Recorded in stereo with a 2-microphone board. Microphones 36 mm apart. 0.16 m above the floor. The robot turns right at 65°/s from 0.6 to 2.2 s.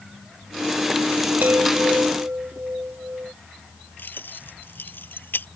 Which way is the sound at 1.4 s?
115° right.